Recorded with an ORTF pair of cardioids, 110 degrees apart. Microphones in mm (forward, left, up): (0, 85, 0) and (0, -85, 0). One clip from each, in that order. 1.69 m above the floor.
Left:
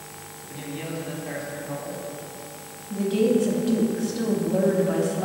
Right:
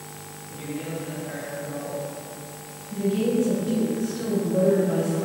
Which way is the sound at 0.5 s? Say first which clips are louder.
Even; 35° left.